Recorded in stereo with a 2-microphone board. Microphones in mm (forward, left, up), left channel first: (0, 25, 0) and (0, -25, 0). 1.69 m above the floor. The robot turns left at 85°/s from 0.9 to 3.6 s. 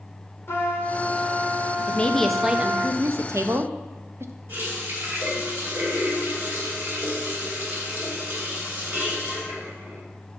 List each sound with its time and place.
0.5 s a trumpet: 55° left, 1.1 m; by 2.9 s 115° right, 1.1 m
1.9 s a woman speaking: 35° left, 0.5 m; by 4.3 s 110° right, 0.5 m
4.5 s a running tap: 50° right (ahead or behind), 2.5 m